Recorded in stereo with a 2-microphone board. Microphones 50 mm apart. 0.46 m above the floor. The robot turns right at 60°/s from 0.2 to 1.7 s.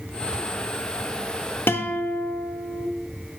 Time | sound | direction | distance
1.7 | a guitar | 50° left (ahead or behind) | 0.6 m